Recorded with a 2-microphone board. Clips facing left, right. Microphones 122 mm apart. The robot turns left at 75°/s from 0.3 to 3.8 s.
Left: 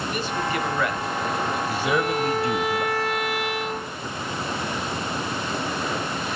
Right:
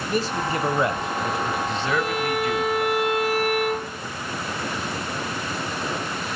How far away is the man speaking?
About 1.2 m.